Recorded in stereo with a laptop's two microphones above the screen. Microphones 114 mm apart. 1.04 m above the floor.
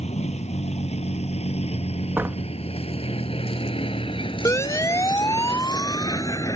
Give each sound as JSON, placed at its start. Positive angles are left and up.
{"t": 0.0, "sound": "a vehicle", "side_deg": 75}
{"t": 2.2, "sound": "a door slam", "side_deg": -20}
{"t": 4.5, "sound": "a siren", "side_deg": 25}